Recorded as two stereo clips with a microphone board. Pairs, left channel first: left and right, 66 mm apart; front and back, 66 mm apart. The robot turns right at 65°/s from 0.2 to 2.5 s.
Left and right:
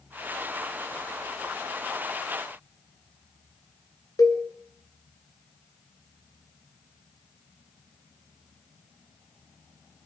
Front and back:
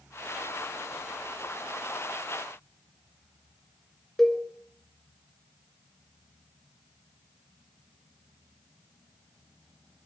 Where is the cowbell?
85° left, 2 m.